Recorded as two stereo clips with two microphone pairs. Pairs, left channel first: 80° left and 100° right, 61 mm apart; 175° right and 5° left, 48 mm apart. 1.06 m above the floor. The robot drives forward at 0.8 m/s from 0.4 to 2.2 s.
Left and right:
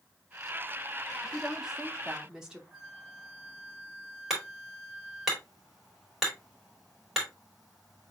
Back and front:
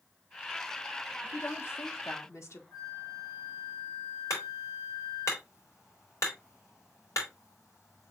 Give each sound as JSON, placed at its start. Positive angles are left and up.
{"t": 1.2, "sound": "a woman speaking", "azimuth_deg": -175, "distance_m": 0.6}
{"t": 2.7, "sound": "a flute", "azimuth_deg": 180, "distance_m": 2.0}
{"t": 4.3, "sound": "hammering", "azimuth_deg": 175, "distance_m": 3.0}